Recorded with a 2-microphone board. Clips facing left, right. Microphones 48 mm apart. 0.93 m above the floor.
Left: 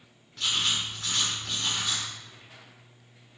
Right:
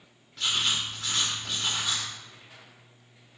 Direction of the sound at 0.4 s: 5° right (ahead or behind).